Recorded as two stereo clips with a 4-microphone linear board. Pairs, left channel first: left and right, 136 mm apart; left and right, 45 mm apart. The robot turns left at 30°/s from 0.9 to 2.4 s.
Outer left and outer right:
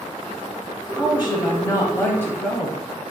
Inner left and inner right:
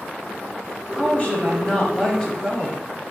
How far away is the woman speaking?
About 1.2 m.